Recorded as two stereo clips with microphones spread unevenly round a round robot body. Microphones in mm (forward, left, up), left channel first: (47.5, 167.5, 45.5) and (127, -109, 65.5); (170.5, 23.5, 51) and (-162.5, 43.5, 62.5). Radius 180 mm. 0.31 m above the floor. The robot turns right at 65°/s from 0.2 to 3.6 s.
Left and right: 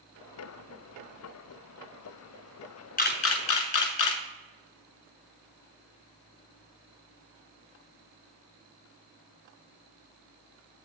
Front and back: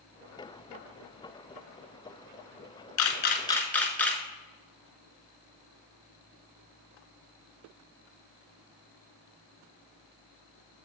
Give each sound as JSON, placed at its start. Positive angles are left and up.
{"t": 3.0, "sound": "a camera shutter", "azimuth_deg": 40, "distance_m": 0.9}